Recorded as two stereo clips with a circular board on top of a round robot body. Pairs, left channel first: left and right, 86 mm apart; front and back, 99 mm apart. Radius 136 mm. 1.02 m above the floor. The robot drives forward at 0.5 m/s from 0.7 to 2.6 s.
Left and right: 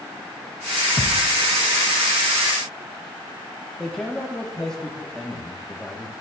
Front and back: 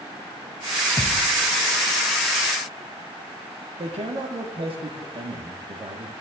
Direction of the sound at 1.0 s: 70° left.